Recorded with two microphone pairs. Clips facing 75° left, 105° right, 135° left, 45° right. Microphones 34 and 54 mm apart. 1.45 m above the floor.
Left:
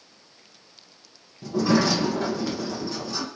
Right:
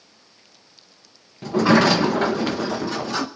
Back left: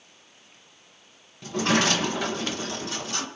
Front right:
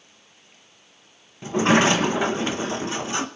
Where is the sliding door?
105° right, 0.8 m.